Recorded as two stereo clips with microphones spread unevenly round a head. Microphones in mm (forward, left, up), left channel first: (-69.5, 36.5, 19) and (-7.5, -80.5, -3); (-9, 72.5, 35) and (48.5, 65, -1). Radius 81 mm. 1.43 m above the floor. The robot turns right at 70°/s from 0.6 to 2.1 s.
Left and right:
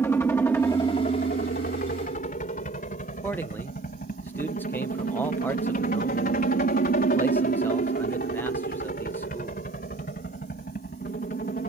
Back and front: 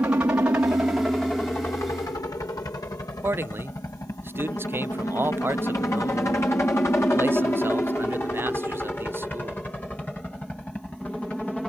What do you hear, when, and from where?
0.0 s a helicopter: 40° left; by 11.7 s 85° left
3.2 s a man speaking: 40° left